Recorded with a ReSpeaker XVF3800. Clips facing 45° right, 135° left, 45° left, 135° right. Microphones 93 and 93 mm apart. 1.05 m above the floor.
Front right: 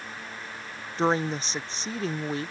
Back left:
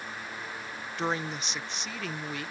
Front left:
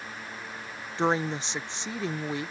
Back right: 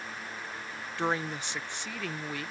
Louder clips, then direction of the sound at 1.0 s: Front right 7 dB, front left 5 dB; 10° right.